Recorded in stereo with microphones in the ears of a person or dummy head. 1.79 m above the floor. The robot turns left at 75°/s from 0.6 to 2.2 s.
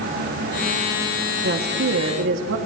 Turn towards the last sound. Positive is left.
turn(degrees=-110)